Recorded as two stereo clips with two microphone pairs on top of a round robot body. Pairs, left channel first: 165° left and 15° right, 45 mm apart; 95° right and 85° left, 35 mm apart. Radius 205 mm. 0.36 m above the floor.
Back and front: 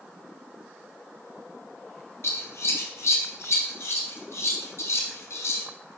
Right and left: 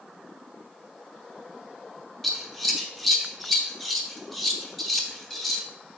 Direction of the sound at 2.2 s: Straight behind.